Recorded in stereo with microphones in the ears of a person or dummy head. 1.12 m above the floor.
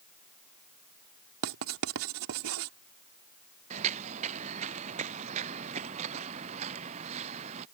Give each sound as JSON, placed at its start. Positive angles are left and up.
{"t": 1.4, "sound": "writing", "side_deg": -80}
{"t": 3.7, "sound": "footsteps", "side_deg": -35}